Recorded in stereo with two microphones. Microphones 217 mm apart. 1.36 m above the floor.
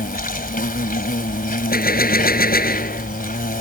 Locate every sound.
0.0 s an insect: 40° left (ahead or behind)
1.7 s a gunshot: 45° left (ahead or behind)